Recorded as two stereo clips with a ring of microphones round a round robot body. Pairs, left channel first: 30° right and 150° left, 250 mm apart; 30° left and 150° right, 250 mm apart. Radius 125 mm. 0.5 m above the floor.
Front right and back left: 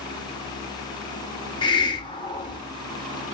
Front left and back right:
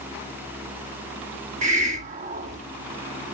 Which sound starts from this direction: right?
A hiss, at 1.6 s.